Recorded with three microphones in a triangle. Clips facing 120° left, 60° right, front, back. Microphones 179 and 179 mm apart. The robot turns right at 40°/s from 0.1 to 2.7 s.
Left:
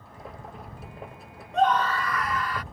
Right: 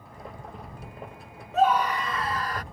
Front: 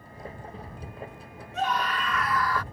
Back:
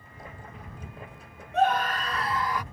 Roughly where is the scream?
Behind right.